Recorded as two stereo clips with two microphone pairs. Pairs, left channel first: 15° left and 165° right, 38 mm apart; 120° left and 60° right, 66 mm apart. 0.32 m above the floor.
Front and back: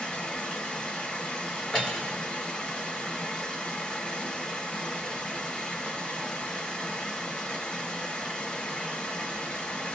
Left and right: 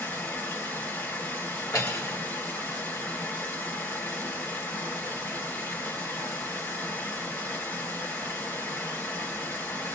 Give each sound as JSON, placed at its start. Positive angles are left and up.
{"t": 0.0, "sound": "running water", "azimuth_deg": 75, "distance_m": 2.5}
{"t": 1.7, "sound": "cutlery clinking", "azimuth_deg": 95, "distance_m": 3.0}